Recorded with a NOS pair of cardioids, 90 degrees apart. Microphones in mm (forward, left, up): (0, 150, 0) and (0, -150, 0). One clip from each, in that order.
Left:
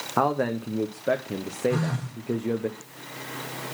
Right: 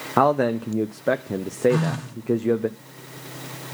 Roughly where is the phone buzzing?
Ahead right.